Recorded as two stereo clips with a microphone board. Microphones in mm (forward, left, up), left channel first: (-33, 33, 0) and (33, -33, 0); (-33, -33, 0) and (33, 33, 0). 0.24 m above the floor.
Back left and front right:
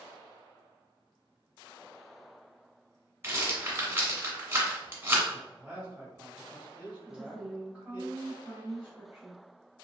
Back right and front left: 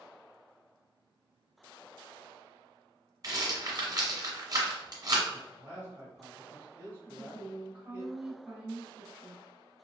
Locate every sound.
3.2 s a rattle: 10° left, 1.4 m
5.3 s a man speaking: 10° left, 1.5 m
7.0 s a woman speaking: 10° right, 1.0 m